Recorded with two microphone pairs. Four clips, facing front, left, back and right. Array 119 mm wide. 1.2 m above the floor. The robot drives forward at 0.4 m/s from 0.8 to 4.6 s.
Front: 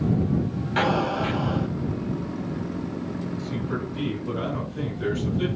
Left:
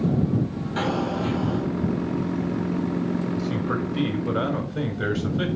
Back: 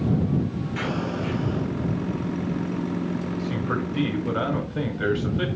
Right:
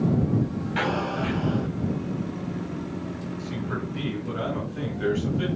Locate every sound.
0.8 s an explosion: 5° left, 3 m
3.4 s a man speaking: 125° left, 5 m; by 5.5 s 130° left, 5.5 m